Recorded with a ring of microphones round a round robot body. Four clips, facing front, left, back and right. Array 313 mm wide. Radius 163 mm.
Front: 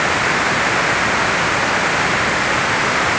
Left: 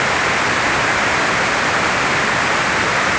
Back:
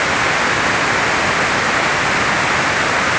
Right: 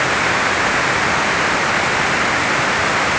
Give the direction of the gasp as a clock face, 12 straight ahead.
I don't hear a gasp.